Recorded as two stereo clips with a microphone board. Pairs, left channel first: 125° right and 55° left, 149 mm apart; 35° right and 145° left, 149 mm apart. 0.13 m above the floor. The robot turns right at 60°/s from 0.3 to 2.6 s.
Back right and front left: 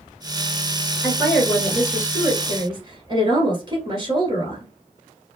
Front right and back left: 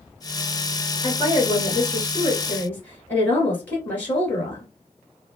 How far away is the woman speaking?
About 1.3 m.